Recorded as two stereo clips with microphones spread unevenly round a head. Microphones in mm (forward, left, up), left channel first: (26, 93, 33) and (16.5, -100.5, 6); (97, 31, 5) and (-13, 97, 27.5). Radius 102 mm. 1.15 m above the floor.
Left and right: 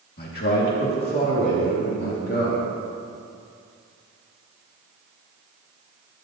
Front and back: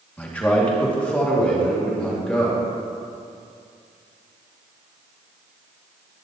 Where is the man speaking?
45° left, 2.5 m; by 2.6 s 50° left, 4.5 m.